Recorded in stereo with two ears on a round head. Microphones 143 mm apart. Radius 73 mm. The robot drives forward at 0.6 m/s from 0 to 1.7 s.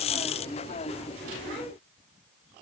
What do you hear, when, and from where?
Only background noise.